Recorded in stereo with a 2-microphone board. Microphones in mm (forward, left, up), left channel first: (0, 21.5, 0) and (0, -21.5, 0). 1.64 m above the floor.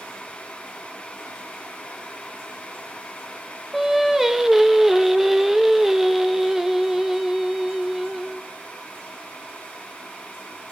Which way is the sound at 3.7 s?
5° right (ahead or behind).